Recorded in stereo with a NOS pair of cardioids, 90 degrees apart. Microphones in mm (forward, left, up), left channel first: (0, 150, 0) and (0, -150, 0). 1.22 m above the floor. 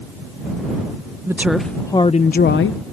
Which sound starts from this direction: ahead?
A woman speaking, at 1.3 s.